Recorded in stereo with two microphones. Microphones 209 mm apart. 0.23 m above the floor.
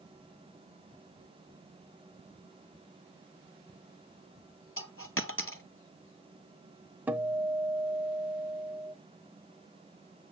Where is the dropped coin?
75° left (ahead or behind), 0.7 m.